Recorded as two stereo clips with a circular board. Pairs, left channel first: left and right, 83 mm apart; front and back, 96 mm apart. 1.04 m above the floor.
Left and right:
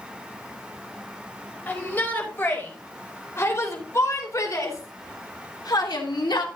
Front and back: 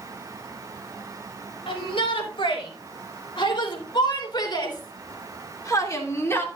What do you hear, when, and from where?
1.7 s a shout: 25° left, 5 m; by 6.5 s 65° left, 2.5 m